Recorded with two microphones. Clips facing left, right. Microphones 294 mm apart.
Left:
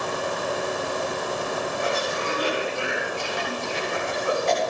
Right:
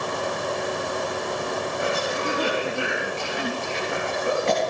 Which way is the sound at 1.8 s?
75° right (ahead or behind).